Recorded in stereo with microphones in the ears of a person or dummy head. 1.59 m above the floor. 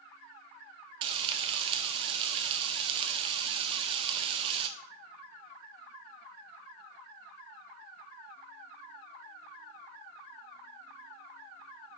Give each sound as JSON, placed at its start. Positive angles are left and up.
{"t": 1.0, "sound": "frying", "side_deg": -25, "distance_m": 0.6}